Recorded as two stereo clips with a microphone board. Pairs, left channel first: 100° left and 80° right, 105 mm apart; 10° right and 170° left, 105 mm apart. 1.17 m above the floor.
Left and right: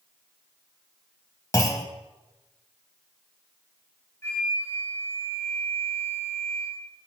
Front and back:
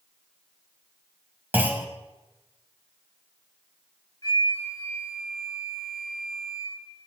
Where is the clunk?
115° left, 1.1 m.